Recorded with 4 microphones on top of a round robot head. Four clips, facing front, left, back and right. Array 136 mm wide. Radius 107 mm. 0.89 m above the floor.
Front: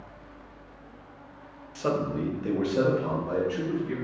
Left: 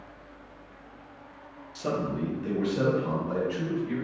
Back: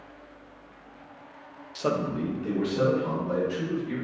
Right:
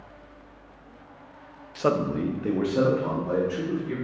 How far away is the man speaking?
About 0.6 m.